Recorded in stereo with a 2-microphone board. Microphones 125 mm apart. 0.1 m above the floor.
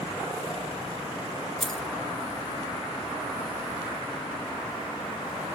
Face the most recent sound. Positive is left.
turn(degrees=0)  # may be behind; listen again after turning